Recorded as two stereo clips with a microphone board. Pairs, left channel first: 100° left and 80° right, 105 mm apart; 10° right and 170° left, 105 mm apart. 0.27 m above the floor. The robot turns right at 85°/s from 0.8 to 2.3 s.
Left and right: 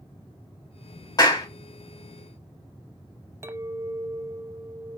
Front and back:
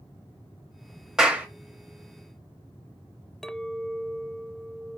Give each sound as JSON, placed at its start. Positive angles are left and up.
{"t": 1.2, "sound": "a clap", "azimuth_deg": 85, "distance_m": 1.0}
{"t": 3.4, "sound": "a clink", "azimuth_deg": -90, "distance_m": 0.5}